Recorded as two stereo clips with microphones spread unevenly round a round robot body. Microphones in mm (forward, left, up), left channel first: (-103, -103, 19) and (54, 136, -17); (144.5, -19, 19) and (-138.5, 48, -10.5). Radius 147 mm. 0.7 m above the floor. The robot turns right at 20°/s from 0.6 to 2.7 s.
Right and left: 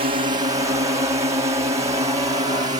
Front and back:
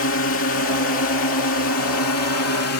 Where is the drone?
5° left; by 2.8 s 10° right.